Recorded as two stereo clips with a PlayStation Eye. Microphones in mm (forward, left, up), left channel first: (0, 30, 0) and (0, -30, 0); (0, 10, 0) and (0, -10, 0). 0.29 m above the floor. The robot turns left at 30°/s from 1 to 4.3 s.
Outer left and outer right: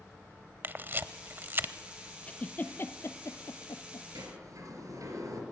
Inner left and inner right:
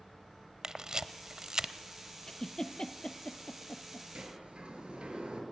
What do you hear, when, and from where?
0.6 s a camera shutter: 35° right (ahead or behind), 0.7 m
2.3 s a giggle: 20° left (ahead or behind), 1.3 m; by 4.0 s 75° left (ahead or behind), 1.3 m
4.2 s a sliding door: 70° right (ahead or behind), 4.5 m